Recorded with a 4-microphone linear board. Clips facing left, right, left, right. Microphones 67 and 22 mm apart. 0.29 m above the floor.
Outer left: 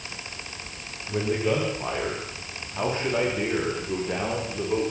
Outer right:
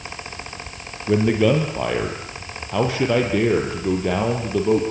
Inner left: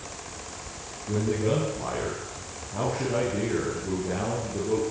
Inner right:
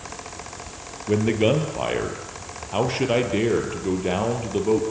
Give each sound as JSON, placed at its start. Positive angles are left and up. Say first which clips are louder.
{"t": 1.1, "sound": "a man speaking", "louder": "outer right 8 dB, inner right 6 dB", "side_deg": -80, "distance_m": 7.0}